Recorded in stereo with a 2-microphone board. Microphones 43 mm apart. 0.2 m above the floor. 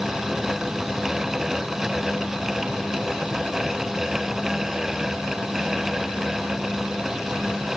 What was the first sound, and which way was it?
Only background noise.